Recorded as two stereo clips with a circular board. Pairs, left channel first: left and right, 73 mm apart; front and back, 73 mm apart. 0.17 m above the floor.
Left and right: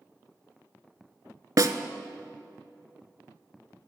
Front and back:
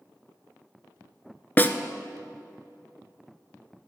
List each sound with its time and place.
1.6 s a snare drum: 60° right, 0.6 m